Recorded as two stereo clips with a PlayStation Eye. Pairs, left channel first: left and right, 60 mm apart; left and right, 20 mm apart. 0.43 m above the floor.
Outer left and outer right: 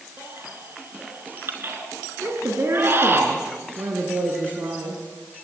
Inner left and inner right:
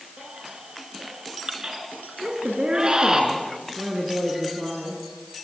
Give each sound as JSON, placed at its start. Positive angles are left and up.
{"t": 0.2, "sound": "a baby crying", "side_deg": -40, "distance_m": 4.0}
{"t": 2.2, "sound": "a woman speaking", "side_deg": -50, "distance_m": 4.5}